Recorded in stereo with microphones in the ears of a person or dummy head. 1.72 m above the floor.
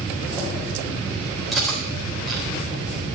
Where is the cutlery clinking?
5° right (ahead or behind), 3.5 m.